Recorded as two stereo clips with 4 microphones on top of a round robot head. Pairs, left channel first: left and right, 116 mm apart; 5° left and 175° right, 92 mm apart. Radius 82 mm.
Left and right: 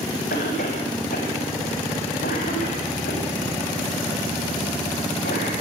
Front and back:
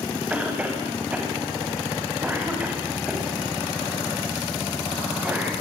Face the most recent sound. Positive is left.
turn(degrees=110)